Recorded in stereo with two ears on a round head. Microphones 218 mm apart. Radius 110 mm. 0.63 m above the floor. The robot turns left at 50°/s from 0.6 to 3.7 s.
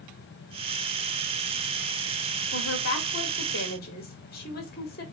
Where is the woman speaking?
110° left, 1.6 m; by 5.0 s 50° left, 1.6 m.